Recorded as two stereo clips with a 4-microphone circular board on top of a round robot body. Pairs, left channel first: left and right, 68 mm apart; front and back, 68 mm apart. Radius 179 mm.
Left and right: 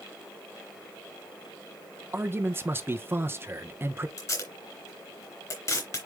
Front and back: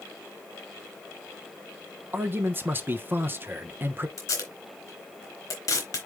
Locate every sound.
2.1 s a man speaking: 135° right, 1.1 m
4.2 s tape being pulled: 45° left, 2.5 m